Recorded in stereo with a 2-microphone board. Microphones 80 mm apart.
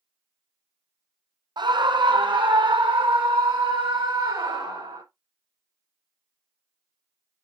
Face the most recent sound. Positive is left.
turn(degrees=-80)